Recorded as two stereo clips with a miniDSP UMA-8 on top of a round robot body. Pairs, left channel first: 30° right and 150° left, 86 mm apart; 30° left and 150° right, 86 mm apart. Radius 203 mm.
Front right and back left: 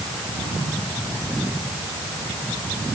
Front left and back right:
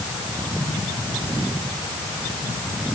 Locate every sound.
Only background noise.